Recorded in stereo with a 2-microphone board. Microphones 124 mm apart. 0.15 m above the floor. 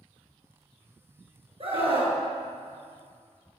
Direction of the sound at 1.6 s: 50° right (ahead or behind).